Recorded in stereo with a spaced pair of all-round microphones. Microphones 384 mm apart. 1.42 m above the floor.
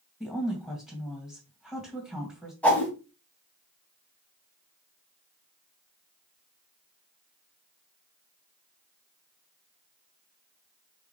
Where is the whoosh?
5° left (ahead or behind), 1.6 m.